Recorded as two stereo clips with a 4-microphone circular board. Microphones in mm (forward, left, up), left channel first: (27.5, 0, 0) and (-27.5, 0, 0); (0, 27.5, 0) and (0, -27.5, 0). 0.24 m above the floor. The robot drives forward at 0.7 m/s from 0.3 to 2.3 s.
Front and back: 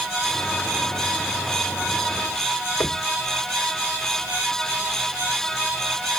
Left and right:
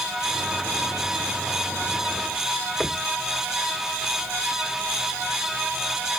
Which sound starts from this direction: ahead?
Knocking, at 2.8 s.